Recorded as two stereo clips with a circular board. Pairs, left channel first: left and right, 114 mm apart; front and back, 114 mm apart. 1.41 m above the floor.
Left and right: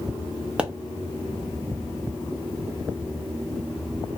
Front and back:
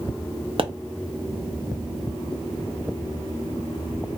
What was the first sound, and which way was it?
A pop, 165° right.